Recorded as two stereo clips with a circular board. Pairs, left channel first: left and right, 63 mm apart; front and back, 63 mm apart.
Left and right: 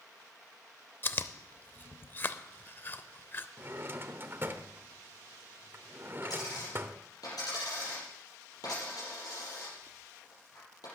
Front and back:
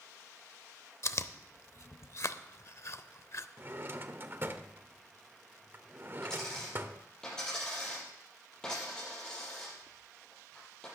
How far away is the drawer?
About 0.8 m.